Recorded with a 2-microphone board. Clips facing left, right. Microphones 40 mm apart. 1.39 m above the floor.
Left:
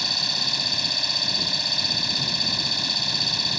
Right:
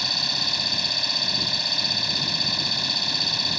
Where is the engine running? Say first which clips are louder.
Even; 5° right (ahead or behind).